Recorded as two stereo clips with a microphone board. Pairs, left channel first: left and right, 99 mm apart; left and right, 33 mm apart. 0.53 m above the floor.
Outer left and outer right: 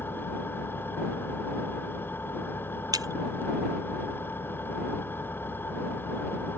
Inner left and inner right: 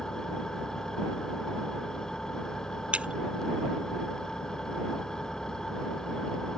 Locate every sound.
0.0 s an engine running: 20° left (ahead or behind)
2.9 s breaking glass: 40° right (ahead or behind)